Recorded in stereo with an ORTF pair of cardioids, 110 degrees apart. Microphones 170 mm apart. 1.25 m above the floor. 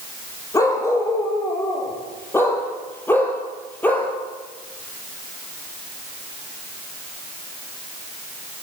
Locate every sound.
0.5 s a dog barking: 20° left, 8.5 m; by 4.1 s 10° left, 7 m